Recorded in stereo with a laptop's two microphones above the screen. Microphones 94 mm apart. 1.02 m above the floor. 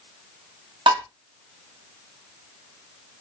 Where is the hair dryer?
I don't hear a hair dryer.